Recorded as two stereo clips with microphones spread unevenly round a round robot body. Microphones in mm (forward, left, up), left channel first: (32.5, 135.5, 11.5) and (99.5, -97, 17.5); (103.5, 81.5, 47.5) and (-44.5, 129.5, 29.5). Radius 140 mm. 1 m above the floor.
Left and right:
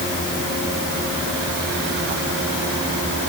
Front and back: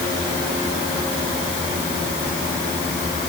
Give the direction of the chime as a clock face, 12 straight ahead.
No chime in this recording.